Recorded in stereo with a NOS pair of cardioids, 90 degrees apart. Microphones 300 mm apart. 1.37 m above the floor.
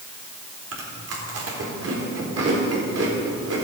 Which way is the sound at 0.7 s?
55° right.